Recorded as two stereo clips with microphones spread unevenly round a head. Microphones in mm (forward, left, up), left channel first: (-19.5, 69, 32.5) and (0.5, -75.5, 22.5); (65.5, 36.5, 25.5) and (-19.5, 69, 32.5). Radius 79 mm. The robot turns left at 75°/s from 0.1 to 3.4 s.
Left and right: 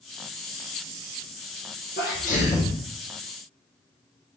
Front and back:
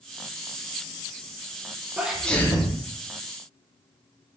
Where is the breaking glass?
No breaking glass in this recording.